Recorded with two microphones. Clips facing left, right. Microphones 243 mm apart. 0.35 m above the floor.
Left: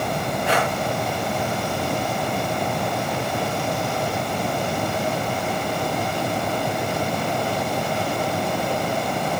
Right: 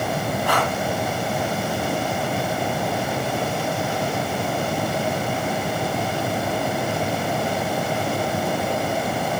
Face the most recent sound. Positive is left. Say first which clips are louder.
# left 2 dB
turn(degrees=25)  # may be behind; listen again after turning